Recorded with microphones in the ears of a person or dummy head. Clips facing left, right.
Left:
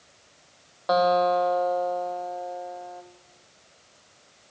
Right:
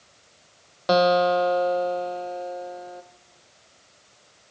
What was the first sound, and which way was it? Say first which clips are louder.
A guitar: right 2 dB; 35° right (ahead or behind).